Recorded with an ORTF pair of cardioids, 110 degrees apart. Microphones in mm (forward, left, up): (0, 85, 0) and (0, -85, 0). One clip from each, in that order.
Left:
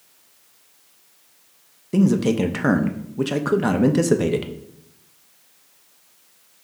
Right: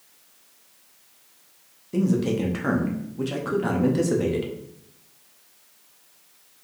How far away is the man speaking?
About 0.6 m.